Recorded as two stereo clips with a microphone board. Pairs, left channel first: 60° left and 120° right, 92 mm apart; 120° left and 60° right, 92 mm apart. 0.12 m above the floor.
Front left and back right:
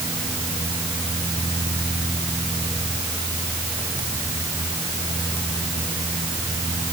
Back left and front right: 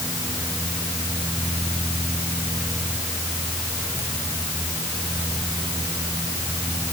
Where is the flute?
No flute in this recording.